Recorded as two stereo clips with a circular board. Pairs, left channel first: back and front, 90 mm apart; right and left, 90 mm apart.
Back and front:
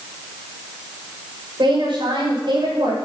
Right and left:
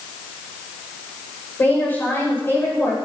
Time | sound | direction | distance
1.6 | a woman speaking | 20° right | 6.5 m